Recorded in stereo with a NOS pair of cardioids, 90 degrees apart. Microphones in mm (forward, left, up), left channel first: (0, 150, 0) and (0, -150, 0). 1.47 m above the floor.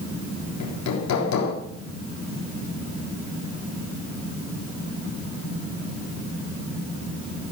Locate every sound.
0.6 s hammering: 65° left, 4 m